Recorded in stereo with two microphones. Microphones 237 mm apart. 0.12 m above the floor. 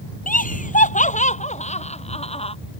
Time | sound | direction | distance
0.3 | laughter | 35° left (ahead or behind) | ?